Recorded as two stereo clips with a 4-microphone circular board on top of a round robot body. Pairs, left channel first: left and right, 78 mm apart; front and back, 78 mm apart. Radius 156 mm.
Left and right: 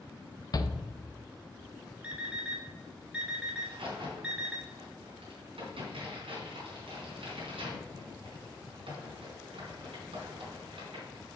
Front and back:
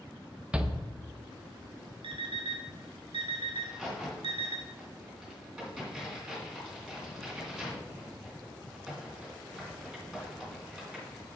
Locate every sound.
0.5 s a shout: 105° left, 1.0 m
2.0 s an alarm clock: 165° right, 1.4 m
3.6 s a crack: 95° right, 3 m